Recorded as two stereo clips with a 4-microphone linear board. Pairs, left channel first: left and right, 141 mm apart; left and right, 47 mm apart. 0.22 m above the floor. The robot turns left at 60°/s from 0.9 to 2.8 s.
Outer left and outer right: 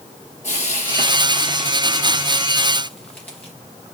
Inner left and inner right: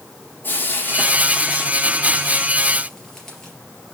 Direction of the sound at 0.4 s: 55° left (ahead or behind).